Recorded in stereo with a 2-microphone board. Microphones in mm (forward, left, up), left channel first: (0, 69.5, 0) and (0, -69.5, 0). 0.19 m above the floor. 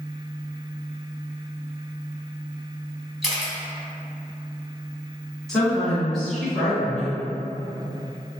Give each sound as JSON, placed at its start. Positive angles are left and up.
{"t": 3.2, "sound": "a camera shutter", "side_deg": 0, "distance_m": 0.9}
{"t": 5.5, "sound": "a woman speaking", "side_deg": 5, "distance_m": 1.6}